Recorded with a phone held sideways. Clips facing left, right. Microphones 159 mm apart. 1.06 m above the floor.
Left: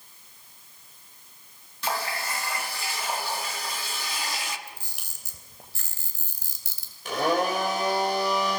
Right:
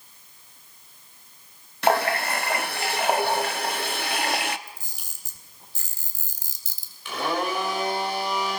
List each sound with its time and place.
1.8 s a running tap: 65° right (ahead or behind), 1.0 m
4.7 s a camera shutter: 70° left (ahead or behind), 3 m
7.0 s a blender: 40° left (ahead or behind), 6.5 m